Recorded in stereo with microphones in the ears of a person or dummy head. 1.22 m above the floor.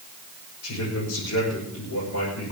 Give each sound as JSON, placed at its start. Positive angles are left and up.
{"t": 0.6, "sound": "a man speaking", "side_deg": 85, "distance_m": 6.0}